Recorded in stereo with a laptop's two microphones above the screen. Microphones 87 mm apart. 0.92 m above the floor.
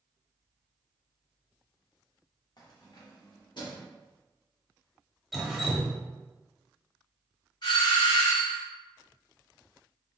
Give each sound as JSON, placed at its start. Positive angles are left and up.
{"t": 2.6, "sound": "keys jangling", "side_deg": 50, "distance_m": 0.8}
{"t": 5.3, "sound": "dripping", "side_deg": 0, "distance_m": 0.7}
{"t": 7.6, "sound": "a doorbell", "side_deg": 55, "distance_m": 1.8}